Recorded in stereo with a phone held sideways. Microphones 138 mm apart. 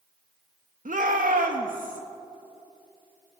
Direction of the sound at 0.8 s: 70° right (ahead or behind).